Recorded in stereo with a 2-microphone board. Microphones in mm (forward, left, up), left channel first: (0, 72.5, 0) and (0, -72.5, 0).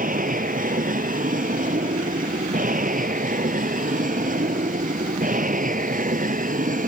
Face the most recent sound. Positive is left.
turn(degrees=-70)  # may be behind; listen again after turning